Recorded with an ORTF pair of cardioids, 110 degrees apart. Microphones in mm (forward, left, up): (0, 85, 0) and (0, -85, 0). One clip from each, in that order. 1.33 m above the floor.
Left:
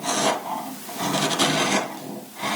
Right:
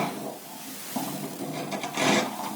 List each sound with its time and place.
Only background noise.